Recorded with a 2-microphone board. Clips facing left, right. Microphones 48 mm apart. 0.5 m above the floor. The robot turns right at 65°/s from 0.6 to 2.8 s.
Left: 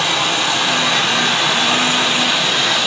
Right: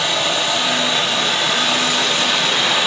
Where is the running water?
60° left, 2.5 m; by 2.9 s 155° right, 2.5 m.